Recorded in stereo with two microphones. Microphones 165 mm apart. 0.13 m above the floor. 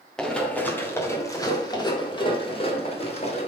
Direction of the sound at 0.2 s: 5° left (ahead or behind).